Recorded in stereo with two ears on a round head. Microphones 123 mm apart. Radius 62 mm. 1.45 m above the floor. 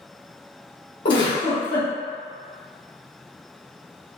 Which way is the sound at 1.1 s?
35° left (ahead or behind).